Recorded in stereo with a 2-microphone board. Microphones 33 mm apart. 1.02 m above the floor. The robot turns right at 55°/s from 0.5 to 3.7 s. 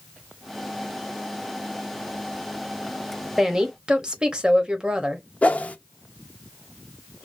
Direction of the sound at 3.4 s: 15° right (ahead or behind).